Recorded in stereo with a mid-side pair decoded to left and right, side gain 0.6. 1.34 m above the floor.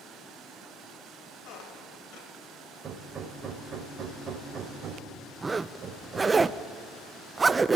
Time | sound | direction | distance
1.4 | a squeak | 65° left | 3.5 m
2.8 | hammering | 40° right | 3.5 m
5.4 | a zipper | 20° right | 0.7 m